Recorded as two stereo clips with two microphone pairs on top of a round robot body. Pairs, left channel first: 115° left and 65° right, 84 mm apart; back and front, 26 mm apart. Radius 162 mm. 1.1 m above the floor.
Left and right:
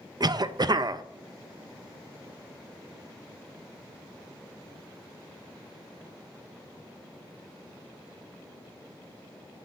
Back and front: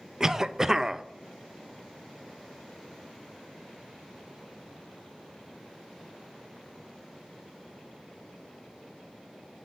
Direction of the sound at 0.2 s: 70° right.